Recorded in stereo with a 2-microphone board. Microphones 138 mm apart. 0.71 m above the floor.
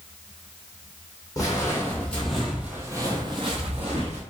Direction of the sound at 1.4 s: 25° left (ahead or behind).